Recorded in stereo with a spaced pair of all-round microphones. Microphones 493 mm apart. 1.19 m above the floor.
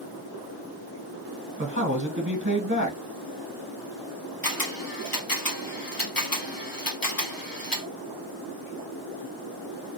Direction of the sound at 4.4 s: 45° left (ahead or behind).